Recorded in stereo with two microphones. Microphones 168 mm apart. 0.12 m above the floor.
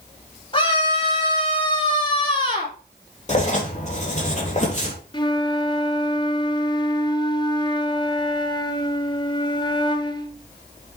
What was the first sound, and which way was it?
A scream, 30° left (ahead or behind).